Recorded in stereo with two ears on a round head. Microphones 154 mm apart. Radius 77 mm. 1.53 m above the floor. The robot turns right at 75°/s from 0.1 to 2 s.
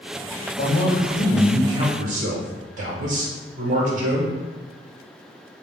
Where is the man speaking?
120° left, 1.5 m; by 4.3 s 130° right, 1.5 m.